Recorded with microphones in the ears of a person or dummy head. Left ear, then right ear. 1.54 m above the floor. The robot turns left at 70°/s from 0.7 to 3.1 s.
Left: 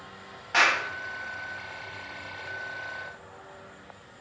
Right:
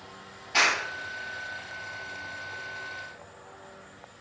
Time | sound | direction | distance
0.5 | a clap | 50° left (ahead or behind) | 6.5 m